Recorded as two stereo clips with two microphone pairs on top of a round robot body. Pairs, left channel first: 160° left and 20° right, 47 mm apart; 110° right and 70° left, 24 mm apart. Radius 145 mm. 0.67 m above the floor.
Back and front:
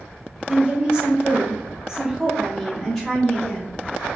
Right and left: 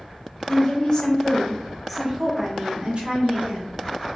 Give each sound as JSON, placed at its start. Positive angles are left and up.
{"t": 0.5, "sound": "a woman speaking", "azimuth_deg": -75, "distance_m": 1.7}